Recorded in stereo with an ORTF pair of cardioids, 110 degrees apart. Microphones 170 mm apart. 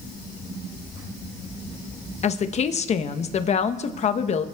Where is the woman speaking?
40° left, 1.1 m.